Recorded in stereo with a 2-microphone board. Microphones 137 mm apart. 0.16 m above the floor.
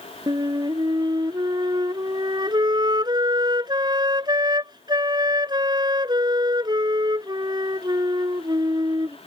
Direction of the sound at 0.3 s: 30° right (ahead or behind).